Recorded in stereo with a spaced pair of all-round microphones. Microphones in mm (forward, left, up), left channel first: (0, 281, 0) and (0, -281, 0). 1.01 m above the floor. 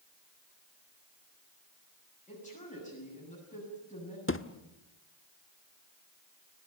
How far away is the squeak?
I don't hear a squeak.